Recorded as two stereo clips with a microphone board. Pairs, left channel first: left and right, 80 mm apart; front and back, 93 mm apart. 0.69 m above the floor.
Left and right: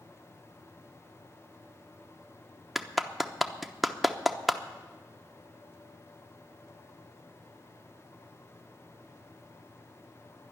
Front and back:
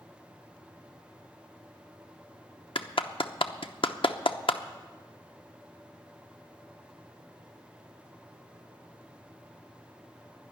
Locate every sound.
2.8 s a clap: straight ahead, 0.8 m